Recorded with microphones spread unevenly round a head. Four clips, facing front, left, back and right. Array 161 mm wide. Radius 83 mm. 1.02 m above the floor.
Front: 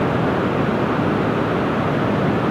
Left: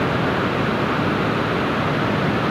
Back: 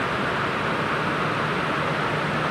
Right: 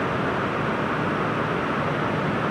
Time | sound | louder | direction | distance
0.0 | running water | left 4 dB, front 6 dB | 20° left | ?